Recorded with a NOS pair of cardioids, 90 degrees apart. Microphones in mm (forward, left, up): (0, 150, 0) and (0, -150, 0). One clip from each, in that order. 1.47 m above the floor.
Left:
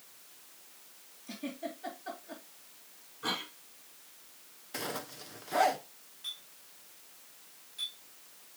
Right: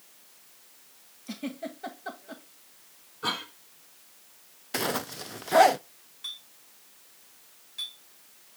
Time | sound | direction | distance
1.3 | a giggle | 45° right | 2.5 m
3.2 | a cough | 55° right | 6 m
4.7 | a zipper | 40° right | 0.5 m
6.2 | a clink | 50° right | 4.5 m